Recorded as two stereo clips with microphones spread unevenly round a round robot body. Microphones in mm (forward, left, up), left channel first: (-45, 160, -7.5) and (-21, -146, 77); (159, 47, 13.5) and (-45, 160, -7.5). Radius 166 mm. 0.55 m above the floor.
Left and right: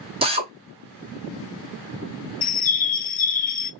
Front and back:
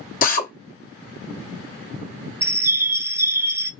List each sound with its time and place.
0.2 s a drill: straight ahead, 0.9 m
2.4 s a bird: 80° left, 0.6 m